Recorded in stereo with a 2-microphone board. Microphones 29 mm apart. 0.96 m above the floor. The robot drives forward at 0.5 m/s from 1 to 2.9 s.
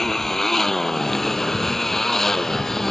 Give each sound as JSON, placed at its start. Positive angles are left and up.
{"t": 0.0, "sound": "a motorcycle", "side_deg": 10}